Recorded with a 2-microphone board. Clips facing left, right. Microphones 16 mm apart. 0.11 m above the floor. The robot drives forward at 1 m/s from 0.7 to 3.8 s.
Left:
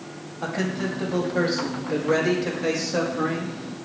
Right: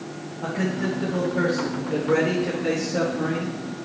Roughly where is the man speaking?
Left.